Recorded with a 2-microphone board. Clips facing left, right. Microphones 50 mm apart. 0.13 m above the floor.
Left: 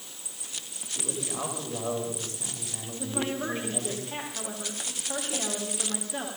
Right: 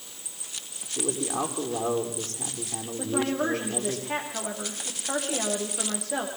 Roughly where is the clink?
I don't hear a clink.